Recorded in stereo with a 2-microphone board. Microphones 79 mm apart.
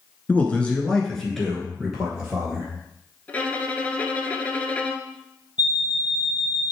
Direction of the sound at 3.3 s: 20° left (ahead or behind).